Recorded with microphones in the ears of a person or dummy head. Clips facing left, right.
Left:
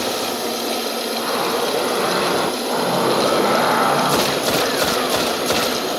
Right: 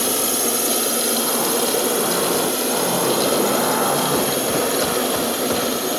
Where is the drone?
50° right (ahead or behind); by 6.0 s 40° right (ahead or behind).